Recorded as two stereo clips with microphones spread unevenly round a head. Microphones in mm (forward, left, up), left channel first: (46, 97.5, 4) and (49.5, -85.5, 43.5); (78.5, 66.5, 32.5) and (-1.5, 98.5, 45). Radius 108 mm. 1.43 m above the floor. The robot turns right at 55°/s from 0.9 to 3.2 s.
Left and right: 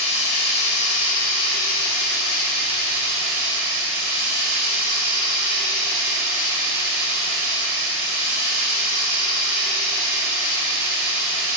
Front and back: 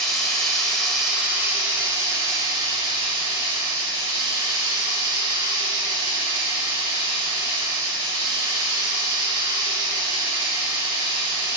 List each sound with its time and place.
0.0 s running water: 65° left, 2.5 m; by 11.6 s 170° right, 2.5 m